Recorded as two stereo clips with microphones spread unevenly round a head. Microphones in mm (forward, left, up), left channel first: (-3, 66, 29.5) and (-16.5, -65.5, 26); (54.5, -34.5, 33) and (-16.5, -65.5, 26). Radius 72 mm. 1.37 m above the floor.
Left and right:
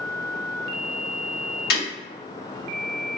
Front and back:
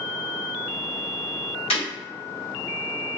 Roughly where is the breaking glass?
Ahead left.